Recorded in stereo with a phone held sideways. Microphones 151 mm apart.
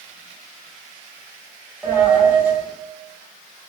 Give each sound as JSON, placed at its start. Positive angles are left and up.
{"t": 1.8, "sound": "a dropped coin", "side_deg": -10, "distance_m": 1.0}